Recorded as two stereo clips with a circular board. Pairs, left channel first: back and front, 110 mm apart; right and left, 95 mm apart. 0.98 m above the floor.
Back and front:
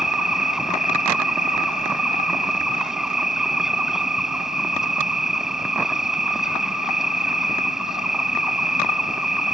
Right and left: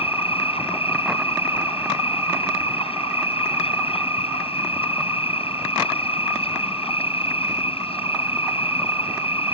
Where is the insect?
85° right.